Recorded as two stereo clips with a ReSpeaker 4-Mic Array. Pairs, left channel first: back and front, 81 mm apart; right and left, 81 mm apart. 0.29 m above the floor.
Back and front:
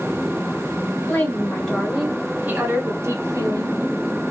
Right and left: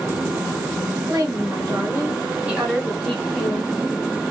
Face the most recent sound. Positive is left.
turn(degrees=-25)